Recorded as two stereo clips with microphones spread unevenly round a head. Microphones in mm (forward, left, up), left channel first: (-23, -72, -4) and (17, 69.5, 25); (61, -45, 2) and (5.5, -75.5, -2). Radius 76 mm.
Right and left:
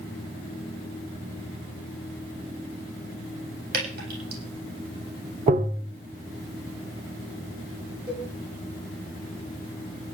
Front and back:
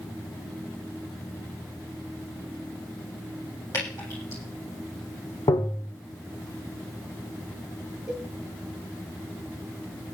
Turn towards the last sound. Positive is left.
turn(degrees=135)